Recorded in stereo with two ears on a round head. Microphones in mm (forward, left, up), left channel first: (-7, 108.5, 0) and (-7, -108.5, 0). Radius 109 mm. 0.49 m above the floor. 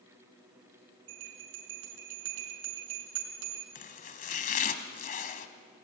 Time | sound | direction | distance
1.1 | a bell | 60° right (ahead or behind) | 4.5 m
3.8 | chopping | 35° left (ahead or behind) | 1.4 m